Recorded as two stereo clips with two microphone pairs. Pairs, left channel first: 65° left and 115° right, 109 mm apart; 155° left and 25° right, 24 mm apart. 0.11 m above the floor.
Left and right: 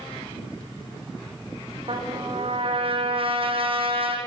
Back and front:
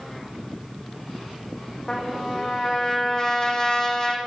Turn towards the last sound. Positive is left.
turn(degrees=-145)